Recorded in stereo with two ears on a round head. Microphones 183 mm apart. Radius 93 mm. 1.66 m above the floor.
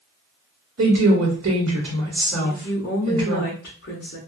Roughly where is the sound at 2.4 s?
Left.